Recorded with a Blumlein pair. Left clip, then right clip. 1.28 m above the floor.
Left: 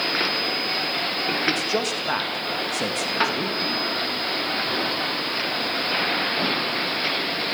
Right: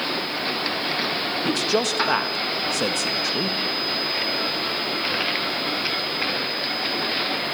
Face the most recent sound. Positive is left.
turn(degrees=-15)